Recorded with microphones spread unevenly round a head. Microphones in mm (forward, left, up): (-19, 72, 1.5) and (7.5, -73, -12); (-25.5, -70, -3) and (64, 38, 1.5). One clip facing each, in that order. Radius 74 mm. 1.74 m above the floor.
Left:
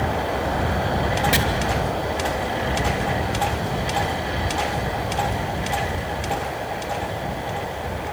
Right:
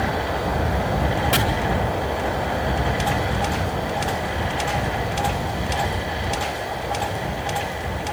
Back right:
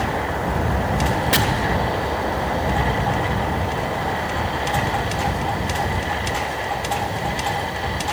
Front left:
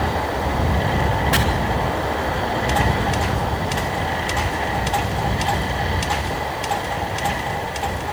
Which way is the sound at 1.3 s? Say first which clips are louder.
Right 2 dB, even; straight behind.